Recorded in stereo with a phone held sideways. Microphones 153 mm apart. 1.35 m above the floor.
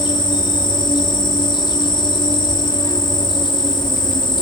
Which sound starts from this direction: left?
An insect, at 0.0 s.